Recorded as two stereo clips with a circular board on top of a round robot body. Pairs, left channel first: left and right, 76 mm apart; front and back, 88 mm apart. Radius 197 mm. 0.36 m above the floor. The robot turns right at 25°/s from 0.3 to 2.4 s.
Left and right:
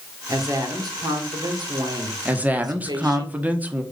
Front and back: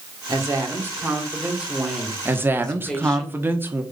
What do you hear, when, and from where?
0.3 s a woman speaking: 135° right, 2.5 m; by 3.2 s 80° right, 2.5 m
2.2 s a woman speaking: 145° right, 1.5 m; by 3.8 s 140° right, 1.5 m